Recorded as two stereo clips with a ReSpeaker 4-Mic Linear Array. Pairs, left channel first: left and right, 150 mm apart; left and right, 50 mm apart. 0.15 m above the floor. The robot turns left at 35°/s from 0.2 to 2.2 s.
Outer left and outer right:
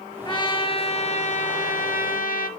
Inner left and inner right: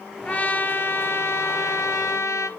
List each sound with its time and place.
0.2 s a trumpet: 150° left, 0.8 m; by 2.5 s 80° left, 0.8 m